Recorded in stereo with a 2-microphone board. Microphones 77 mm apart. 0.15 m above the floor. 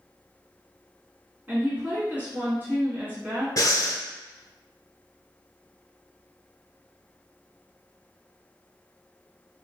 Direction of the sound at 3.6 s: 50° left (ahead or behind).